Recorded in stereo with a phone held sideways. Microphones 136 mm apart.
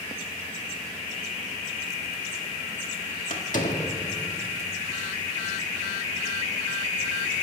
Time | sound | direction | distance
3.3 | a door slam | 75° left (ahead or behind) | 1.5 m